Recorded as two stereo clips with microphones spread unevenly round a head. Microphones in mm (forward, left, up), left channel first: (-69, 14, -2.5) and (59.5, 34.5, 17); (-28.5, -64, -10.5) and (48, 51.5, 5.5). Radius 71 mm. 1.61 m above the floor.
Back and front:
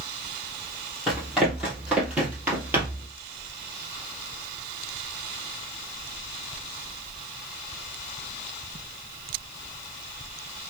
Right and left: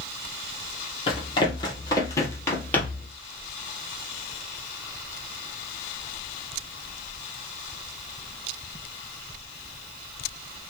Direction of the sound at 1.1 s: 70° right.